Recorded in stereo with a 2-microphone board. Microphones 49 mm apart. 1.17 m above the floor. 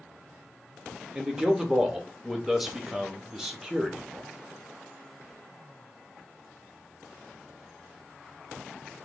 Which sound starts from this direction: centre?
A man speaking, at 1.1 s.